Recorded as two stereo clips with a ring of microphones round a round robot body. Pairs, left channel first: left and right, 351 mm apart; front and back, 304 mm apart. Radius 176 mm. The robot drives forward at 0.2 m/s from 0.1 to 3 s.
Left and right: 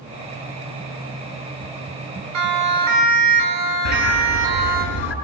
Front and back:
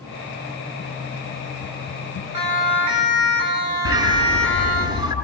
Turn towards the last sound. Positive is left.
turn(degrees=105)